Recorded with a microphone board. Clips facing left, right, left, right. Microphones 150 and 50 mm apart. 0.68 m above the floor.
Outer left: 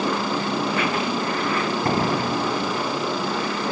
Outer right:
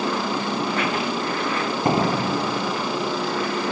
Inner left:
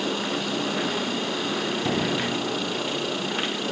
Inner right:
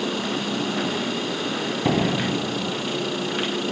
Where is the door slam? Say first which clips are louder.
Outer right 4 dB, inner right 6 dB; 20° right (ahead or behind).